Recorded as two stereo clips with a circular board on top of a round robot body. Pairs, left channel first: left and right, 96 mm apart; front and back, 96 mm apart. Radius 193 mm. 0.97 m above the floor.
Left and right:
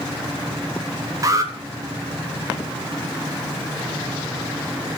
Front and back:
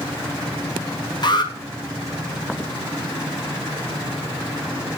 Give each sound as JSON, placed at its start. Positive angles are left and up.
{"t": 1.2, "sound": "an alarm", "azimuth_deg": -35, "distance_m": 3.5}